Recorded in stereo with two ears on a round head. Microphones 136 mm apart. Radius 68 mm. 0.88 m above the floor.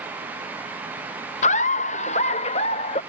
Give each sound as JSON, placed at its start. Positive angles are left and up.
{"t": 1.4, "sound": "laughter", "side_deg": 45}